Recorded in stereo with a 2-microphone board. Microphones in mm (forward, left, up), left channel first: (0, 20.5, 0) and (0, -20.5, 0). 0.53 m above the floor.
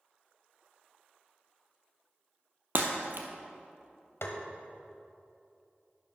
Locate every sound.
2.8 s breaking glass: 60° right (ahead or behind), 1.4 m
4.2 s tapping: 80° left, 1.2 m